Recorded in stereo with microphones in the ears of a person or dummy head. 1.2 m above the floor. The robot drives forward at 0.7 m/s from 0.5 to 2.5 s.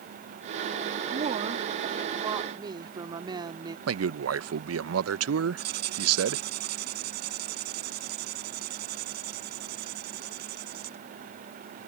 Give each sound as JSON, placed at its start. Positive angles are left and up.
{"t": 1.1, "sound": "a woman speaking", "side_deg": -35}
{"t": 3.9, "sound": "a man speaking", "side_deg": -85}
{"t": 5.6, "sound": "writing", "side_deg": -60}